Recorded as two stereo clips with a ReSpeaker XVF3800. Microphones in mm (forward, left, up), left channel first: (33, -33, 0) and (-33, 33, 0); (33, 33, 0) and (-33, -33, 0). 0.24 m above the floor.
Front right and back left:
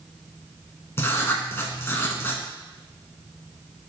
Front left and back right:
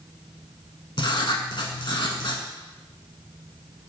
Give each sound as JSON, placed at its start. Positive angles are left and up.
{"t": 1.0, "sound": "writing", "azimuth_deg": 20, "distance_m": 0.6}